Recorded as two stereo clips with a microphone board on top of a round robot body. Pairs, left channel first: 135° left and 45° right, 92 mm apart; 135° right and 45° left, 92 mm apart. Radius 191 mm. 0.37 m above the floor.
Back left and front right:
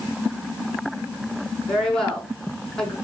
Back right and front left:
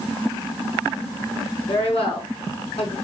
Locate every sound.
1.7 s a woman speaking: 140° right, 5.5 m